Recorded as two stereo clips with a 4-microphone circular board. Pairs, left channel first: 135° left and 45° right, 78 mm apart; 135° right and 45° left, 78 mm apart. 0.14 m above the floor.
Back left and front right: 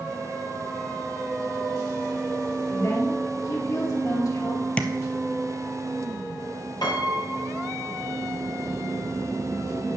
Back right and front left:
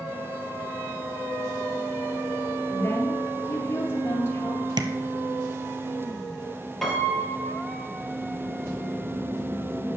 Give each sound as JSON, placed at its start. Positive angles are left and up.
{"t": 2.7, "sound": "a woman speaking", "azimuth_deg": 170, "distance_m": 3.0}
{"t": 4.8, "sound": "tapping", "azimuth_deg": 60, "distance_m": 0.9}
{"t": 6.8, "sound": "a piano", "azimuth_deg": 140, "distance_m": 2.0}